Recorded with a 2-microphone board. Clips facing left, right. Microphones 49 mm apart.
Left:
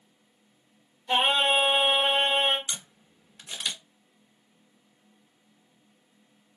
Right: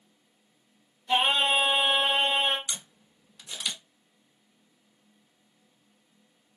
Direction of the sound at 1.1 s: 30° left (ahead or behind).